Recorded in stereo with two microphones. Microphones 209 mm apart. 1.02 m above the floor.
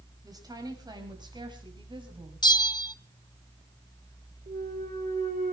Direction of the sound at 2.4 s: 20° left (ahead or behind).